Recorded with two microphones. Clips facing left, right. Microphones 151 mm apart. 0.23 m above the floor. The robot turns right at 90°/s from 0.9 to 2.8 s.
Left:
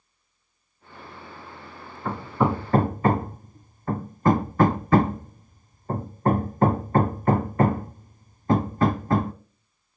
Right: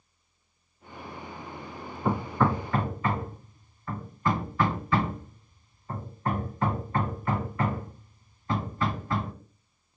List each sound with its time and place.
2.0 s hammering: 15° right (ahead or behind), 0.5 m; by 9.3 s 45° left (ahead or behind), 0.5 m